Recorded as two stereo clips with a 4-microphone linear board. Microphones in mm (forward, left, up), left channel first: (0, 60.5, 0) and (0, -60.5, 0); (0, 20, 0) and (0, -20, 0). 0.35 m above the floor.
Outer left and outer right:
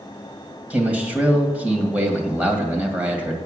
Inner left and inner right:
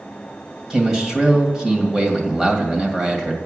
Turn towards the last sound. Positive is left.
turn(degrees=-10)  # may be behind; listen again after turning